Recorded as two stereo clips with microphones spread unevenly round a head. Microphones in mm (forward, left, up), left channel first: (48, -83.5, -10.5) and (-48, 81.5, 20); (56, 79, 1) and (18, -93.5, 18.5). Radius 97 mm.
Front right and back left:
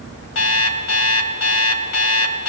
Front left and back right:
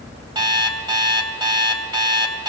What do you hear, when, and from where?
0.3 s an alarm clock: 40° right, 3.5 m